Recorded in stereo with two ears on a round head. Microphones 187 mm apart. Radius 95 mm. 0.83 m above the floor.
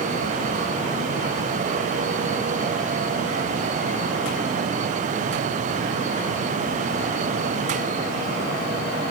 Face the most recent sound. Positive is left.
No sound to turn to.